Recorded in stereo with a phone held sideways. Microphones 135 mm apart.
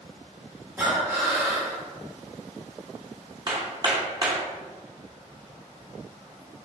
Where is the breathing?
15° right (ahead or behind), 1.5 m.